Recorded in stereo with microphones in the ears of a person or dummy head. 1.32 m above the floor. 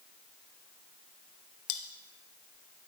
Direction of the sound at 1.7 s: 65° left (ahead or behind).